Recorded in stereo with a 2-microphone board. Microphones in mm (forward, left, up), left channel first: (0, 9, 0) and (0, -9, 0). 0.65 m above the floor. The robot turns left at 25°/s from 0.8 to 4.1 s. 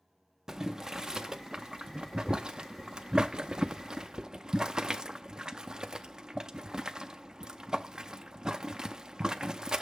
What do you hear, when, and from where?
0.5 s boiling: 30° right (ahead or behind), 0.5 m; by 9.8 s 35° right (ahead or behind), 0.5 m